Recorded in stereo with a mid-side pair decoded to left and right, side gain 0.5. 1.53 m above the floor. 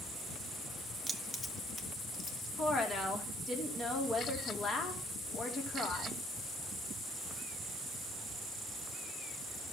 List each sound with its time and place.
1.1 s keys jangling: 10° right, 1.5 m; by 2.5 s 45° left, 2.5 m
2.6 s a woman speaking: 35° left, 3.5 m